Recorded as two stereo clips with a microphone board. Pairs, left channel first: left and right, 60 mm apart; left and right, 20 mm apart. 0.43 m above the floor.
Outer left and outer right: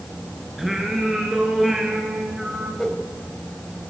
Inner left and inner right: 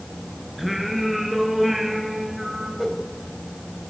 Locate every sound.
0.6 s singing: 5° right (ahead or behind), 5 m
2.8 s a whoosh: 10° left (ahead or behind), 2.5 m